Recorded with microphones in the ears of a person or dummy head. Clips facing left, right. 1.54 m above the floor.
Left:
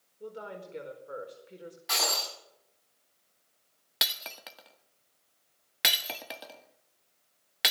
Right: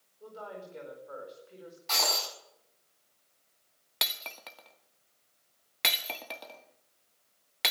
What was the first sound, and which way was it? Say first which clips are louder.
A woman speaking: left 2 dB; 30° left (ahead or behind).